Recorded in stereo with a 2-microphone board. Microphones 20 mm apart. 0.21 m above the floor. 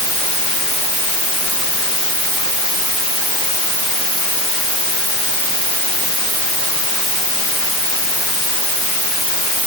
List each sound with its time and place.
Only background noise.